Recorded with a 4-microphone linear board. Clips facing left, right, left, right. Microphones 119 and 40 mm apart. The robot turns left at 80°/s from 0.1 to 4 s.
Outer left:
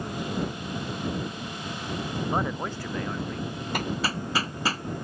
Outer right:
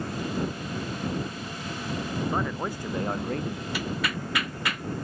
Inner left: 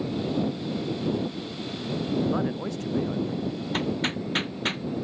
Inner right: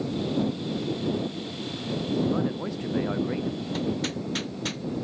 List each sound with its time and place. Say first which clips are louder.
2.3 s a man speaking: outer left 1 dB, even; 25° left; by 3.6 s 85° right
3.7 s hammering: outer left 3 dB, inner left 3 dB; 55° left (ahead or behind); by 4.8 s 35° left (ahead or behind)